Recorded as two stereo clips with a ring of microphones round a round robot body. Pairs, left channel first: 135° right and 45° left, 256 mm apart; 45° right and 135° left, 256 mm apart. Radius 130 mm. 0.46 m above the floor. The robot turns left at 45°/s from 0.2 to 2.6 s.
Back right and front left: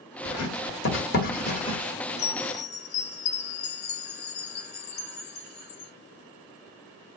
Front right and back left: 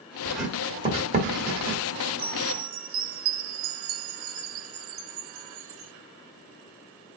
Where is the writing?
130° right, 1.8 m; by 1.8 s 160° left, 1.8 m.